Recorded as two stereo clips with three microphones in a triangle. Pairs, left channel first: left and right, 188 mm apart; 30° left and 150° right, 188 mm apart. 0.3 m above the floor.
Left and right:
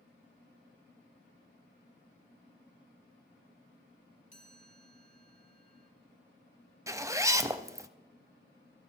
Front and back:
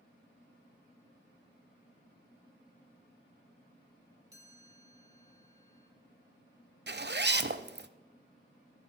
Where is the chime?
140° left, 2 m.